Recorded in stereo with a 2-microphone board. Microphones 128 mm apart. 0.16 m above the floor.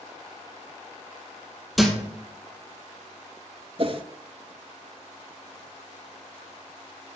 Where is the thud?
Centre (ahead or behind), 2 m.